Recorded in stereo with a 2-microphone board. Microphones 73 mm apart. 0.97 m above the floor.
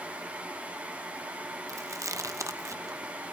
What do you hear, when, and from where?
1.7 s chewing: 45° right (ahead or behind), 0.8 m